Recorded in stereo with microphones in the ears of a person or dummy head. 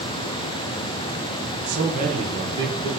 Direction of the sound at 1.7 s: 60° right (ahead or behind).